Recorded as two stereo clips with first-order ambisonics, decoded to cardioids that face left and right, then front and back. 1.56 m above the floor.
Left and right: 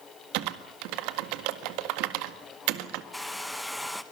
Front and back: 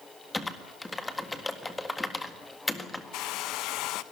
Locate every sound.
0.3 s typing on a keyboard: 80° right, 1.7 m
3.1 s a hair dryer: 5° left, 1.0 m